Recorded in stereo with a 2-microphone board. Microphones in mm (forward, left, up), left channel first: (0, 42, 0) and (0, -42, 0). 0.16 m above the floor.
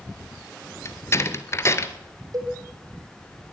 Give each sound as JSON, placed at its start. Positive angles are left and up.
{"t": 0.8, "sound": "a door slam", "side_deg": 35, "distance_m": 1.6}
{"t": 2.3, "sound": "a cowbell", "side_deg": -45, "distance_m": 4.5}